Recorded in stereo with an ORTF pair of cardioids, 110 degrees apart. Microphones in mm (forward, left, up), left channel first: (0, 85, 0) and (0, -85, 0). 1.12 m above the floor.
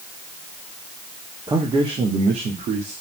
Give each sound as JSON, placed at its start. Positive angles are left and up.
{"t": 1.5, "sound": "a man speaking", "azimuth_deg": -20, "distance_m": 1.5}